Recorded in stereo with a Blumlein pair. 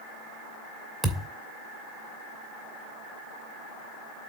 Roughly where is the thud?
Ahead.